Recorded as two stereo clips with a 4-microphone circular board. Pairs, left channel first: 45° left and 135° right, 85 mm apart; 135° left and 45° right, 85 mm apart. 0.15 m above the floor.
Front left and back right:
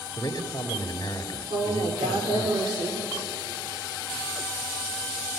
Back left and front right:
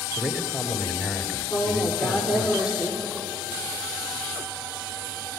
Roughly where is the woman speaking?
Behind right.